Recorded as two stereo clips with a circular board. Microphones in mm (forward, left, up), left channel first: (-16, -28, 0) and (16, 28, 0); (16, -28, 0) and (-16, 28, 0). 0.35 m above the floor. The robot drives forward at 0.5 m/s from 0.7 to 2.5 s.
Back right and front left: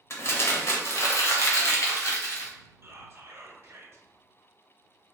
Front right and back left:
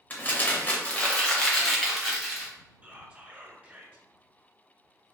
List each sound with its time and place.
0.1 s crumpling: 110° right, 0.7 m; by 2.5 s 155° right, 1.3 m
2.8 s whispering: 70° left, 1.0 m